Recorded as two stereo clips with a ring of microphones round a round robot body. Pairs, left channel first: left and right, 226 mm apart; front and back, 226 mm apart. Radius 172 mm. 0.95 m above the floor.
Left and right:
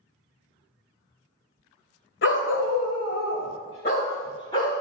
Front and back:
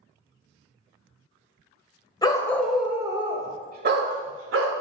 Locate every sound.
2.2 s a dog barking: 70° left, 1.2 m; by 4.7 s 170° left, 1.5 m